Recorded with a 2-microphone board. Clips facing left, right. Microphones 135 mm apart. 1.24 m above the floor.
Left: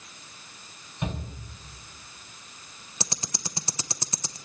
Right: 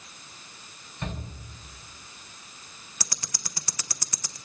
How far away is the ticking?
About 0.7 m.